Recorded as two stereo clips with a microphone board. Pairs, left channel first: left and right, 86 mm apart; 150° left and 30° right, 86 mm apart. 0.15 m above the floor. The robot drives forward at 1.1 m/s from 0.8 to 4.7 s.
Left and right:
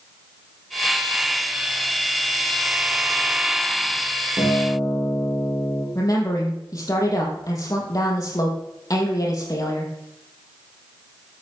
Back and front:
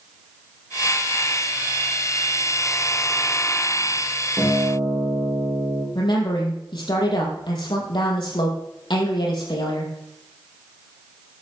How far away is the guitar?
About 8 m.